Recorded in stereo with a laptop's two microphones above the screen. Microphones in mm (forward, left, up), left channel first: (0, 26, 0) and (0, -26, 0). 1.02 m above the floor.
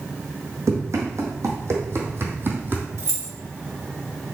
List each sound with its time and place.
0.7 s running footsteps: 70° right (ahead or behind), 2.5 m; by 2.9 s 35° right (ahead or behind), 1.8 m
3.0 s keys jangling: 60° right (ahead or behind), 1.8 m